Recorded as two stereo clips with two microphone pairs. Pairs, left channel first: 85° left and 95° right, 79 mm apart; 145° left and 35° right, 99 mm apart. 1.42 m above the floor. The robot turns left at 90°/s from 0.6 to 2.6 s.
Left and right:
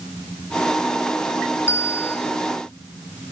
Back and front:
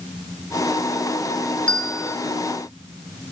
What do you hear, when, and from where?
1.7 s a bell: 80° left, 0.8 m; by 2.2 s 35° left, 0.8 m